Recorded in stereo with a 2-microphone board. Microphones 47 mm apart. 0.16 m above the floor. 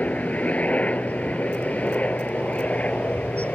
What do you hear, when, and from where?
0.0 s a helicopter: 30° left (ahead or behind)